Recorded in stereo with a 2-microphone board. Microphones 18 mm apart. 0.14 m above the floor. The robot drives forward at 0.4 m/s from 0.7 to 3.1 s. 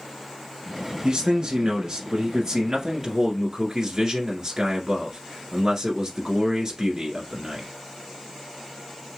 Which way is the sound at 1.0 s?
40° right (ahead or behind).